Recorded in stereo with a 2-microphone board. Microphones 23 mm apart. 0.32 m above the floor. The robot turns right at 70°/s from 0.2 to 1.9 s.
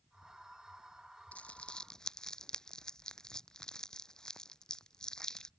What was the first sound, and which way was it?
Crumpling, 65° left (ahead or behind).